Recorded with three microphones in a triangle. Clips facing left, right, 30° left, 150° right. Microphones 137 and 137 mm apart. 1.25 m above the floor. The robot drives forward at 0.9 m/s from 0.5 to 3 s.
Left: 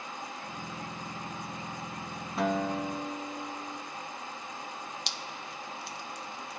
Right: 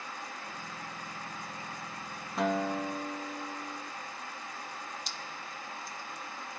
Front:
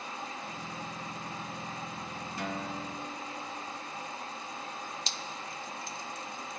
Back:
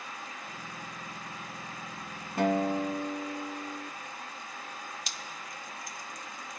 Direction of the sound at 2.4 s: Straight behind.